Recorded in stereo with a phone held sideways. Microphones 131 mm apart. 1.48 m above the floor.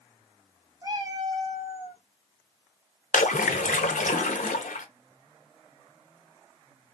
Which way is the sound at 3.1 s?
85° left.